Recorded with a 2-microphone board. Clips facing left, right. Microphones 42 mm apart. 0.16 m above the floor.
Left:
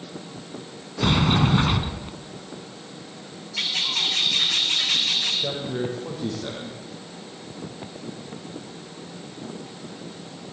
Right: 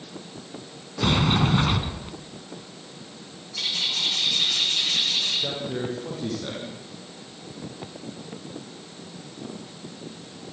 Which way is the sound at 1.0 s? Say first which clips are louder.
Left 1 dB; 5° left (ahead or behind).